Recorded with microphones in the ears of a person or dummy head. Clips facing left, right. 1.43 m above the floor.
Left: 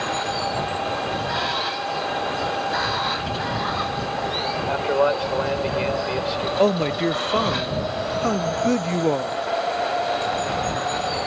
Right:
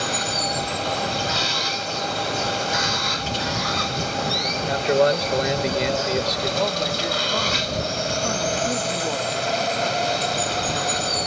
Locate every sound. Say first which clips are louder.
0.0 s running water: left 1 dB; 45° right (ahead or behind)
4.7 s a man speaking: right 2 dB; 25° right (ahead or behind)
6.6 s a man speaking: left 9 dB; 55° left (ahead or behind)